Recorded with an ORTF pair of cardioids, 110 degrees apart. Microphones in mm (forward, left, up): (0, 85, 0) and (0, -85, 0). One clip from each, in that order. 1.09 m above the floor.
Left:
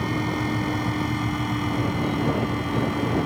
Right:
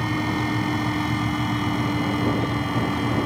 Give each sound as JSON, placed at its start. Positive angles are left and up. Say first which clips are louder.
{"t": 0.0, "sound": "a fan", "louder": "right 1 dB", "azimuth_deg": -25}